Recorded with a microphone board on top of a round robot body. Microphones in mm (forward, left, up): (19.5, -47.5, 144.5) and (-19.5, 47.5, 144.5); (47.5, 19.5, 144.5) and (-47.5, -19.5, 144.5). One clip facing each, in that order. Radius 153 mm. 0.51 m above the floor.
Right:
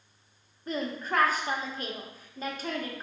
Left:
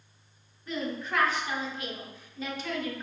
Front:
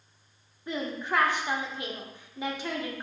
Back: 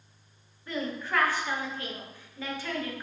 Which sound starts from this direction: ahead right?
A woman speaking, at 0.7 s.